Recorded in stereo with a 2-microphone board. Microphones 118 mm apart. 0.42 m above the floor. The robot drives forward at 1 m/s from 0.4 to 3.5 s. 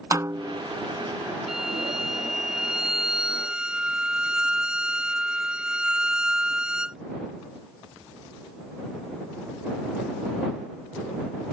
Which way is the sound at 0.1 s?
30° right (ahead or behind).